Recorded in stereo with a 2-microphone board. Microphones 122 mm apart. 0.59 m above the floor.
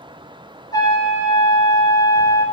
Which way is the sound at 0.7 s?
30° left (ahead or behind).